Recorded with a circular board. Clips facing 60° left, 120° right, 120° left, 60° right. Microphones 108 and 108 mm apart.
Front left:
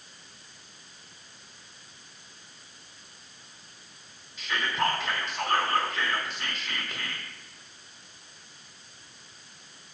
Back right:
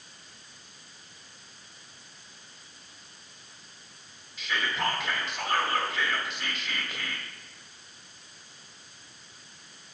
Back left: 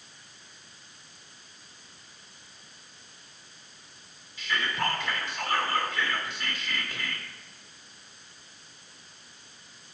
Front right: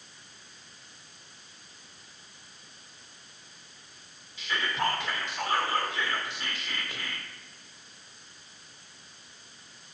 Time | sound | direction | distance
4.4 | whispering | 35° right | 1.3 m